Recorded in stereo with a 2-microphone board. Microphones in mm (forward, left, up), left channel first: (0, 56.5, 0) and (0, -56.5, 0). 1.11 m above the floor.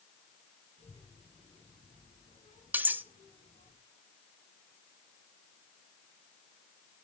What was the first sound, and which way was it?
A child speaking, 80° left.